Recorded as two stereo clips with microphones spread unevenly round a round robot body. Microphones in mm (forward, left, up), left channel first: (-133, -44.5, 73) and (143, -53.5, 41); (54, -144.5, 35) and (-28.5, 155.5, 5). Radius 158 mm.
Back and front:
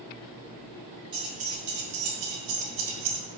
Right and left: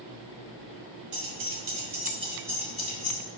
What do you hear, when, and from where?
1.1 s keys jangling: 75° left, 2.5 m; by 3.2 s 5° left, 3 m